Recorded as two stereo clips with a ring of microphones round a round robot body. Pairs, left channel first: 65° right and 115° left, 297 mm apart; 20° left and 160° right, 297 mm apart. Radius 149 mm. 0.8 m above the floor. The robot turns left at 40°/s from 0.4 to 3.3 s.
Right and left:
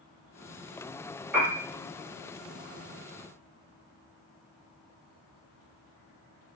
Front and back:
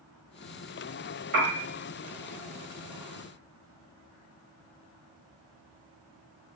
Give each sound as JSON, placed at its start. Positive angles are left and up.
{"t": 1.3, "sound": "a piano", "azimuth_deg": -165, "distance_m": 1.2}